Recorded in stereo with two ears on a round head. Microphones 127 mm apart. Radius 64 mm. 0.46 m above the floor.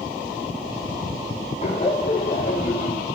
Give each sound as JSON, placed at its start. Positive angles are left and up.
{"t": 1.6, "sound": "laughter", "side_deg": 50, "distance_m": 4.0}